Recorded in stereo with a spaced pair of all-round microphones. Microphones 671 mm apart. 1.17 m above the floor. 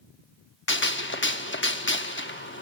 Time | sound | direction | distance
0.7 | a gunshot | 20° left (ahead or behind) | 0.7 m